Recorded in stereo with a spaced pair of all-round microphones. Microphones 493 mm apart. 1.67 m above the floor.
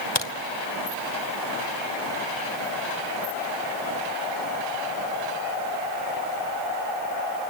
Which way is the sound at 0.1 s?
55° left (ahead or behind).